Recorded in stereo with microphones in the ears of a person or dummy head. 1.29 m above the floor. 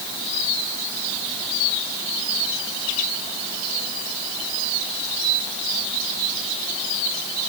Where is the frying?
No frying in this recording.